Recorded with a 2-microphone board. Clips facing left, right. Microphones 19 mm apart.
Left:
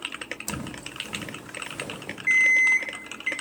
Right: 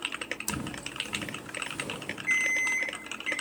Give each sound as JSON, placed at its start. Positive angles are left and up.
{"t": 0.5, "sound": "footsteps", "side_deg": 45, "distance_m": 0.6}
{"t": 2.3, "sound": "an alarm clock", "side_deg": 40, "distance_m": 0.7}